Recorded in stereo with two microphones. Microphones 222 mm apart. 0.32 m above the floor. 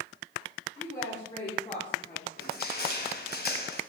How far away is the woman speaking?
About 5 m.